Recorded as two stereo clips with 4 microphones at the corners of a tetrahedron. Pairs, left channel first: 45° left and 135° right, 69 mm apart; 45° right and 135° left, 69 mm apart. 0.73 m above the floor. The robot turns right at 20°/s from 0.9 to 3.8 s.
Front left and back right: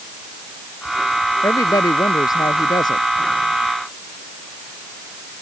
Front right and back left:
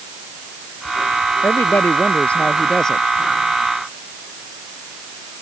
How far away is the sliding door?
No sliding door in this recording.